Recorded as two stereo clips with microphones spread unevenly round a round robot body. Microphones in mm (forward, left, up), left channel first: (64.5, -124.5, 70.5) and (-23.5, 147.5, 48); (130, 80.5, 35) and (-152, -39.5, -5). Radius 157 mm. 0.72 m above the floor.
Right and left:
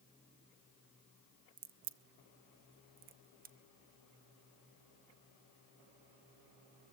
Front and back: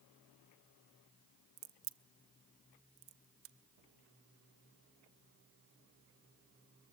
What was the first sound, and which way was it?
A crack, 165° left.